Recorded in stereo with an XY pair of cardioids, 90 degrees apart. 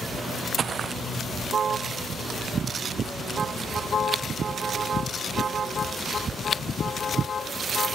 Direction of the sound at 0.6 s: 55° right.